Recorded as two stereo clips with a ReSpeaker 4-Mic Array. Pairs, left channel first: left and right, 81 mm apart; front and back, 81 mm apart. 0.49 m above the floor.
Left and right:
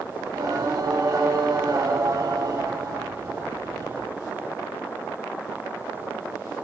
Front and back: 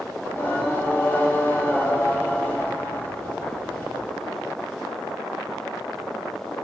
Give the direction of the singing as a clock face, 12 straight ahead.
2 o'clock.